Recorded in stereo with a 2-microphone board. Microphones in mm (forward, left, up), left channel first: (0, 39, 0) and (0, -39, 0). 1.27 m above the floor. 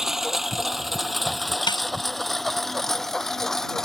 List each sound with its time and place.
0.0 s a lawn mower: 5° right (ahead or behind); by 3.8 s 5° left (ahead or behind)
1.7 s a snare drum: 85° left